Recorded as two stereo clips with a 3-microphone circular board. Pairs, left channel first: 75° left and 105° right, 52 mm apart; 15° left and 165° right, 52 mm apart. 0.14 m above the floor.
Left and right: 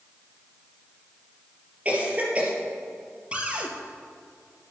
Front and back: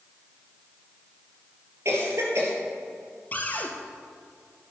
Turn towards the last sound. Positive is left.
turn(degrees=-40)